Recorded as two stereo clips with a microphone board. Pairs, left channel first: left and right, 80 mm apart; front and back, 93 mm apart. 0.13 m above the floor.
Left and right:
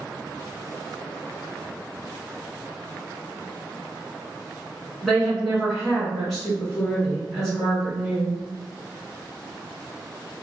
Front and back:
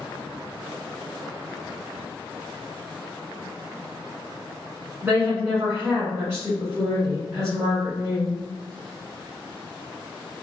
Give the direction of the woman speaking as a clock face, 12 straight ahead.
6 o'clock.